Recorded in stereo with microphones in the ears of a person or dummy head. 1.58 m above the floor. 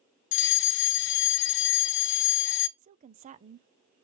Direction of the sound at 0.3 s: 60° left (ahead or behind).